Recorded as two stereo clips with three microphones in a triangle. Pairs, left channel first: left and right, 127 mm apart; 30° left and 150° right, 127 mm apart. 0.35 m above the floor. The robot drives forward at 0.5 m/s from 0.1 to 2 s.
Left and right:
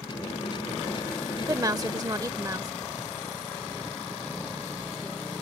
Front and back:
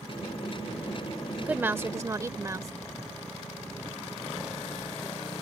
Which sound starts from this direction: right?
A woman speaking, at 1.4 s.